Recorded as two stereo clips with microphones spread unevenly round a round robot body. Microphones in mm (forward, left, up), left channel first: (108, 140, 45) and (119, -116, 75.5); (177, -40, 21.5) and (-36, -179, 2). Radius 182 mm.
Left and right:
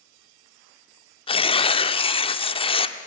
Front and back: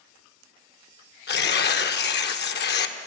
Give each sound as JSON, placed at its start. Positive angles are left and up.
{"t": 1.3, "sound": "tearing paper", "azimuth_deg": 50, "distance_m": 1.2}